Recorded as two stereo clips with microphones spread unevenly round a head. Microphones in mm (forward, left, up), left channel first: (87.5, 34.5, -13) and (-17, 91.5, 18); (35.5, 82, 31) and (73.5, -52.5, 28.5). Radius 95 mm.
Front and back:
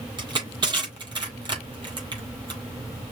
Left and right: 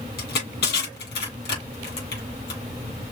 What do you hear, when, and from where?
0.2 s crushing: 105° left, 4.5 m